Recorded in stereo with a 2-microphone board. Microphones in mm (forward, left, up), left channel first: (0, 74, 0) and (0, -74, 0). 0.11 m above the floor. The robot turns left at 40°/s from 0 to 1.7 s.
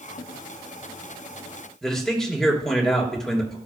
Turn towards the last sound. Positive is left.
turn(degrees=5)  # may be behind; listen again after turning